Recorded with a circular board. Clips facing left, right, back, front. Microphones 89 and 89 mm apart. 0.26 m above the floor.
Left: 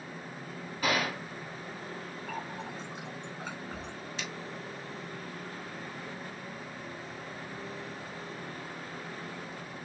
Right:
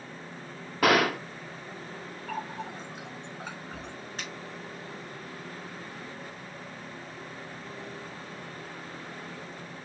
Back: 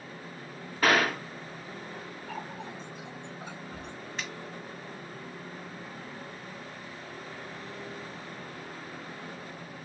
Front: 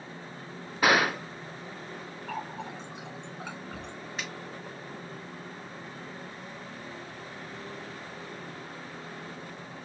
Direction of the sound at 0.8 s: 75° right.